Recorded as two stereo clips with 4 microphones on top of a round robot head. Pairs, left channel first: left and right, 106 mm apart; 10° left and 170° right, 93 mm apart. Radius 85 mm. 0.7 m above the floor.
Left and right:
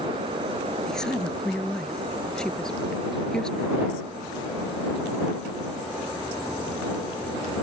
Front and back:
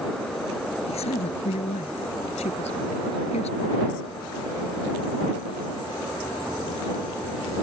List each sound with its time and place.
0.9 s a woman speaking: 5° left